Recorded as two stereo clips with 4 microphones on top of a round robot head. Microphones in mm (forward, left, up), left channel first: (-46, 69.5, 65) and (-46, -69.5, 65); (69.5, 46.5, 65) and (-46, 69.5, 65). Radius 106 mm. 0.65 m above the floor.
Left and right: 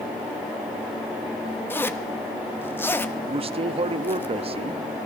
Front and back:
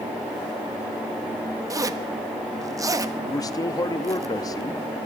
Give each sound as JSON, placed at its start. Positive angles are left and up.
{"t": 1.7, "sound": "a zipper", "azimuth_deg": 150, "distance_m": 0.9}
{"t": 3.3, "sound": "a man speaking", "azimuth_deg": -60, "distance_m": 0.7}